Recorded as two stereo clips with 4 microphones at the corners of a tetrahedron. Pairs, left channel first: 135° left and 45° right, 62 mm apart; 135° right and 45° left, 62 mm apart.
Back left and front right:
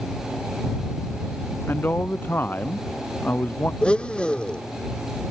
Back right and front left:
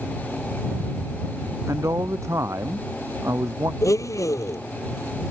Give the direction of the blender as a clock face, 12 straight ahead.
5 o'clock.